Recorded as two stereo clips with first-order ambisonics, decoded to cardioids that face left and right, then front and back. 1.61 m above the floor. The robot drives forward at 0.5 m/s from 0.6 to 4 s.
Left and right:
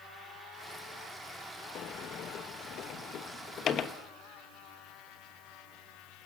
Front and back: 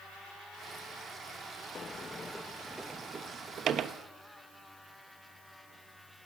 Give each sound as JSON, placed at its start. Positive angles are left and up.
{"t": 1.8, "sound": "a sliding door", "azimuth_deg": 60, "distance_m": 1.0}